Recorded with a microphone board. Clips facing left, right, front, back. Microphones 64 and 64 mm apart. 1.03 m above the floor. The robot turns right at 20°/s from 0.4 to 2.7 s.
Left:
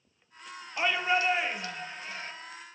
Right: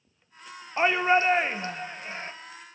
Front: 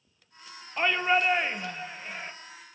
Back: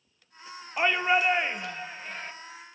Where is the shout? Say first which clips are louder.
Right 6 dB, back 1 dB; 105° right, 0.8 m; by 2.3 s 75° right, 0.8 m.